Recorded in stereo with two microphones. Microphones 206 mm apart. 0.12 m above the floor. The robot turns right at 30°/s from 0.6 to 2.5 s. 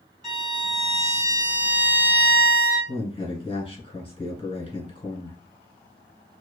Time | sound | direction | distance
0.2 | a violin | 160° right | 2 m
2.9 | a man speaking | 25° left (ahead or behind) | 1.2 m